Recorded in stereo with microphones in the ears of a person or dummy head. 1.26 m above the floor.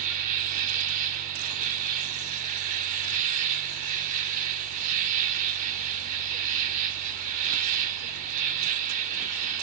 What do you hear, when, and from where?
0.0 s an insect: 45° right (ahead or behind), 0.8 m